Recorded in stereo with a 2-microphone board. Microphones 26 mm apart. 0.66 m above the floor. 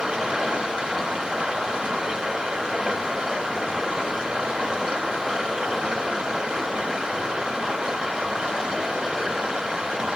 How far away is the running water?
About 1.2 m.